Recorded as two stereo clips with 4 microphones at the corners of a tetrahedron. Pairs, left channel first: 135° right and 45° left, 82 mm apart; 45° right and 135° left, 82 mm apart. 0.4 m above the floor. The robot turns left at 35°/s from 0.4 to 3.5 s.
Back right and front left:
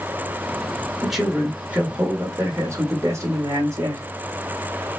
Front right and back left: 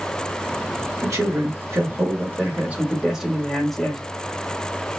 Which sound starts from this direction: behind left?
A man speaking, at 1.0 s.